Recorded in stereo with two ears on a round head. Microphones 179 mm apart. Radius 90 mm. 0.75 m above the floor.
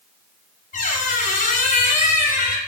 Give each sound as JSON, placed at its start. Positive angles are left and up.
{"t": 0.7, "sound": "a squeak", "side_deg": 40, "distance_m": 0.7}